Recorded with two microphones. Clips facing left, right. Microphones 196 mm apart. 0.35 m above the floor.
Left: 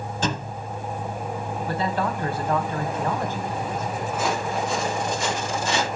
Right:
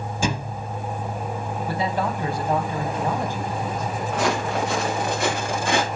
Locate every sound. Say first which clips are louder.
0.2 s a thud: right 2 dB; 10° right (ahead or behind), 0.8 m
1.7 s a man speaking: right 1 dB; 15° right (ahead or behind), 3 m
4.1 s footsteps: right 3 dB; 80° right, 4.5 m; by 5.8 s 55° right (ahead or behind), 4.5 m